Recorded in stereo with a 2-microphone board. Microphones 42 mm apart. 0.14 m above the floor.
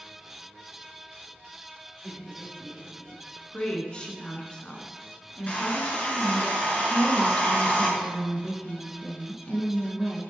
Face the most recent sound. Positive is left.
turn(degrees=30)  # may be behind; listen again after turning